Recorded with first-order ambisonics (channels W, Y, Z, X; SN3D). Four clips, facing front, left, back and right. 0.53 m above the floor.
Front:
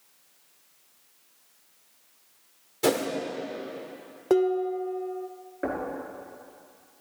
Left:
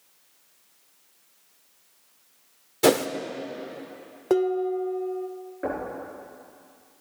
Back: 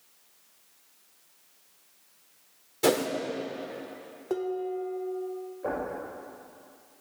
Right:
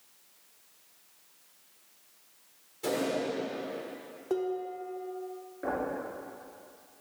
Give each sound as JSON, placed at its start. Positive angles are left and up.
{"t": 2.8, "sound": "a whoosh", "azimuth_deg": 90, "distance_m": 0.9}
{"t": 4.3, "sound": "dishes clattering", "azimuth_deg": 50, "distance_m": 0.6}
{"t": 5.6, "sound": "knocking", "azimuth_deg": 20, "distance_m": 4.5}